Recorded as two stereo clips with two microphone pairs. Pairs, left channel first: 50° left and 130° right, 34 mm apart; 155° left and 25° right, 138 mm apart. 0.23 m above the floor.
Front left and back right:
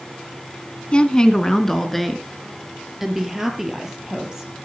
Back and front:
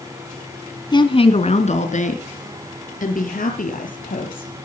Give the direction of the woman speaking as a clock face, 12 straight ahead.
9 o'clock.